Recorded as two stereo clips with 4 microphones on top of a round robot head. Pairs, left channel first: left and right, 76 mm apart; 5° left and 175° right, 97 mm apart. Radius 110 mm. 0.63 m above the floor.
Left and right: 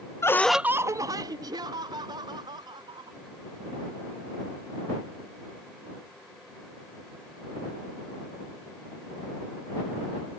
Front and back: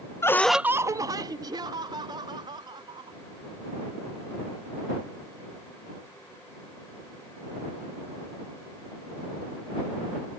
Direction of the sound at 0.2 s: 55° left.